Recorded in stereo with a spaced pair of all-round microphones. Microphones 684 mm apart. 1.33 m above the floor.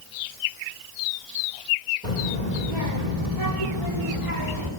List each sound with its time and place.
2.0 s a child speaking: 75° right (ahead or behind), 2.5 m; by 4.7 s 40° right (ahead or behind), 3 m